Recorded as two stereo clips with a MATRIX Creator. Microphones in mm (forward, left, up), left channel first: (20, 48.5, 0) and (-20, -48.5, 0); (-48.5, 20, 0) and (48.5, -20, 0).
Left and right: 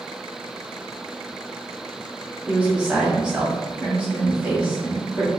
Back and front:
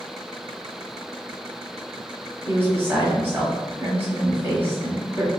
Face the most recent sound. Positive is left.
turn(degrees=-45)